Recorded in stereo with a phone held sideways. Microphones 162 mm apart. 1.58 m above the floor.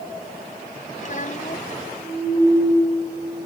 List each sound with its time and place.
1.0 s a child speaking: 50° left (ahead or behind)